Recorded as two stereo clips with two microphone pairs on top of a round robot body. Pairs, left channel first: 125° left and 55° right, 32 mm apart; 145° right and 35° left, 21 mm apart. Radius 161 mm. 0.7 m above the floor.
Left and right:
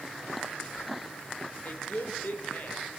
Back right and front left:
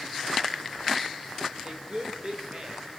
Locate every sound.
1.6 s a woman speaking: 90° left, 4 m